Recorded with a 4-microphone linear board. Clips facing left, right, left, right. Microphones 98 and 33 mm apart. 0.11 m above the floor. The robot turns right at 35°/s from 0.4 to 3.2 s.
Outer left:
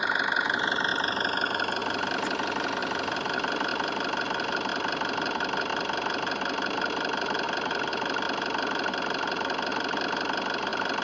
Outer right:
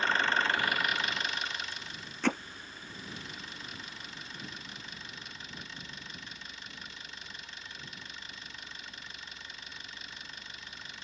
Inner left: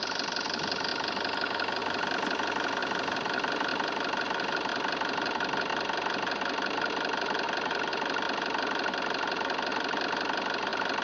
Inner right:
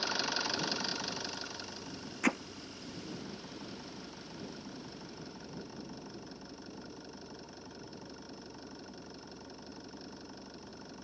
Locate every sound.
0.0 s an engine running: 15° left; by 11.0 s 110° left
2.2 s hammering: 75° right (ahead or behind); by 2.4 s 70° right (ahead or behind)